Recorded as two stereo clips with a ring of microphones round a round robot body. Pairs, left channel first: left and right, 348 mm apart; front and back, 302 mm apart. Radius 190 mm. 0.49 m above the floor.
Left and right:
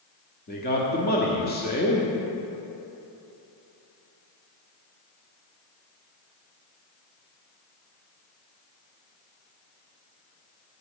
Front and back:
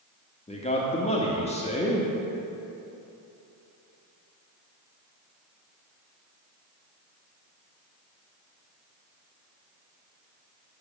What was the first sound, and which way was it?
A man speaking, 55° left.